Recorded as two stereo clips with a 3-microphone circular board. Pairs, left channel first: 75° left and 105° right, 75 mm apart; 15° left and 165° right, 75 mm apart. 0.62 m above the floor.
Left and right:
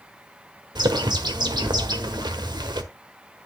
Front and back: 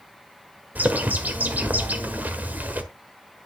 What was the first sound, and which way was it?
A bird, 100° right.